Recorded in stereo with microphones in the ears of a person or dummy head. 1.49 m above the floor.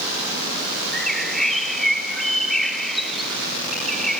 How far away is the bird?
About 0.6 m.